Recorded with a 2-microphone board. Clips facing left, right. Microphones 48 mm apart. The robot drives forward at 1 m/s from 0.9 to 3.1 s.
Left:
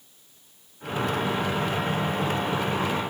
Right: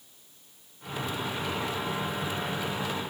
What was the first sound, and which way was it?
Only background noise.